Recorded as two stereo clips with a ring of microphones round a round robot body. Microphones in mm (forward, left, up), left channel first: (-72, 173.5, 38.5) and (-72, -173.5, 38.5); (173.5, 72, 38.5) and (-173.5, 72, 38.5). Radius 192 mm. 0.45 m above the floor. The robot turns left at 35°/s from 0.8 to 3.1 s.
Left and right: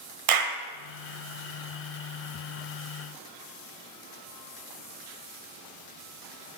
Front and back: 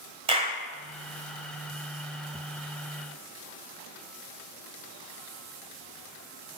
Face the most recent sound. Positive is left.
turn(degrees=175)